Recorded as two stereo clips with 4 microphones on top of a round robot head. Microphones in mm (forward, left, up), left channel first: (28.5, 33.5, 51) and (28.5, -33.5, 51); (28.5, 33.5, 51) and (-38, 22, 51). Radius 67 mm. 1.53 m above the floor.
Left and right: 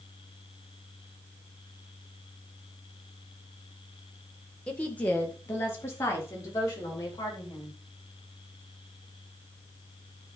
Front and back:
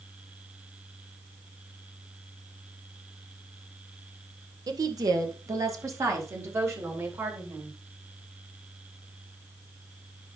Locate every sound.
4.7 s a woman speaking: 170° left, 1.8 m; by 7.8 s 140° left, 4 m